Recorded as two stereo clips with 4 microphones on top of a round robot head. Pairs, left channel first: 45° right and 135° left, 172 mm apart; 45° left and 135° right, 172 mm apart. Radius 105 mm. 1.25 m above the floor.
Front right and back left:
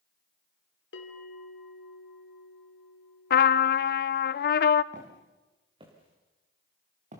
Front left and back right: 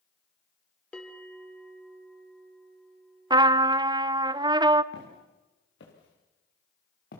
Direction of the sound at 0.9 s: 40° right.